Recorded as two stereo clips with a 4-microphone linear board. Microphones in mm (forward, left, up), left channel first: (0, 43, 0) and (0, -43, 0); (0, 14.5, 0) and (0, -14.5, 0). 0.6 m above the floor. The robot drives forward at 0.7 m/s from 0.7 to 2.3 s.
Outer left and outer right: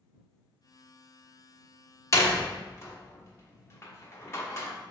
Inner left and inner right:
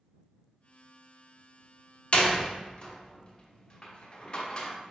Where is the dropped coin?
No dropped coin in this recording.